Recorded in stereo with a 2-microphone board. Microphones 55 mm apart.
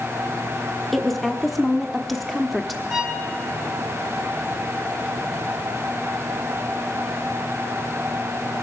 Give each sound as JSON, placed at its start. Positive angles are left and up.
{"t": 0.9, "sound": "a woman speaking", "side_deg": 0, "distance_m": 0.9}
{"t": 2.9, "sound": "a violin", "side_deg": -30, "distance_m": 1.8}